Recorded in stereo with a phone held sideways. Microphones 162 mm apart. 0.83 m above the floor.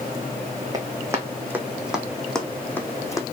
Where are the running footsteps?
25° right (ahead or behind), 2.5 m; by 3.2 s 20° left (ahead or behind), 2 m.